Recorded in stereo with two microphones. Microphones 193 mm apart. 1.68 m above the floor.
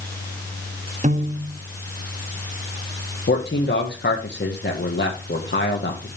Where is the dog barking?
No dog barking in this recording.